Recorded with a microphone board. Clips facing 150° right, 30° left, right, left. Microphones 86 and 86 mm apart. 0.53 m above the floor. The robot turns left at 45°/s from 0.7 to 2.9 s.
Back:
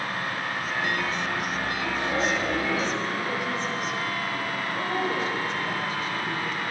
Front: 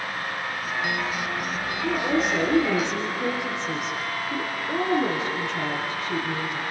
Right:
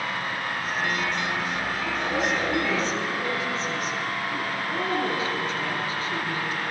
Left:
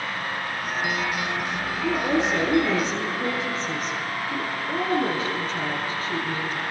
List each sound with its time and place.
1.8 s a woman speaking: 85° left, 8.5 m; by 6.6 s 35° left, 8.5 m